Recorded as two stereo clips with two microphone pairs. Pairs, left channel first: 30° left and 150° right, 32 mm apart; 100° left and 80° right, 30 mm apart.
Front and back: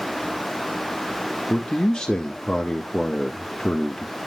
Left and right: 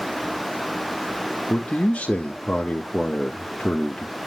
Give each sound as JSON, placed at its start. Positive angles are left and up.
{"t": 1.5, "sound": "a man speaking", "azimuth_deg": 85, "distance_m": 1.1}